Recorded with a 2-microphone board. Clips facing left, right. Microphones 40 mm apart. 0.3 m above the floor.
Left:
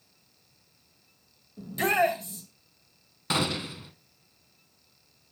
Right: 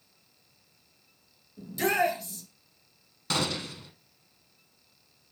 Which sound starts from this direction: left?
A shout, at 1.6 s.